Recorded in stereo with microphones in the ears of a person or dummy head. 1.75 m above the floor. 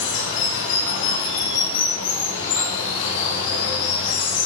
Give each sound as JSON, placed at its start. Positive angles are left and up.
{"t": 0.0, "sound": "running water", "side_deg": 75, "distance_m": 3.0}